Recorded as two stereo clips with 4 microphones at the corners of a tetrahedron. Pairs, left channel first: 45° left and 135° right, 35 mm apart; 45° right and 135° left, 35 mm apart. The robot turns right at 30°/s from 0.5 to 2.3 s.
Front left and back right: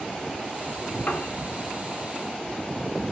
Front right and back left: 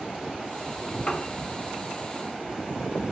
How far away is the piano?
About 2 m.